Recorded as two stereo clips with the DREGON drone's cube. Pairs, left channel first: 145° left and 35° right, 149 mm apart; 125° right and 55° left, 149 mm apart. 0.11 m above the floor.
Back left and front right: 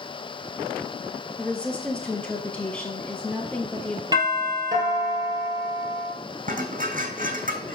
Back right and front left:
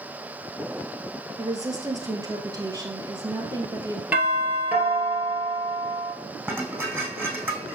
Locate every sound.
1.4 s a woman speaking: 75° left, 1.1 m
4.1 s a doorbell: 15° right, 1.7 m
6.5 s dishes clattering: 20° right, 2.5 m